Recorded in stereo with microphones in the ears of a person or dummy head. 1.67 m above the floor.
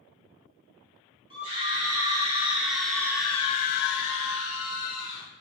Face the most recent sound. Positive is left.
turn(degrees=55)  # may be behind; listen again after turning